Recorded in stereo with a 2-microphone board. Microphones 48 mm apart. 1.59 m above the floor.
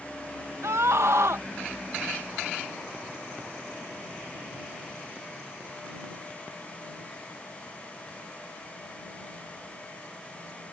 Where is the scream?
75° right (ahead or behind).